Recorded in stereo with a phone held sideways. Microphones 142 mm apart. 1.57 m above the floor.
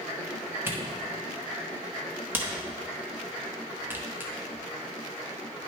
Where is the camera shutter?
15° right (ahead or behind), 1.0 m.